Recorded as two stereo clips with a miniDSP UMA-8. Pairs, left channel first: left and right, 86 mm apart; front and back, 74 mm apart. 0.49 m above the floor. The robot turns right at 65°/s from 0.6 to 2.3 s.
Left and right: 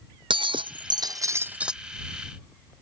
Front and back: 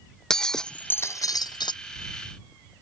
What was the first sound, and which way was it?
Breaking glass, 80° right.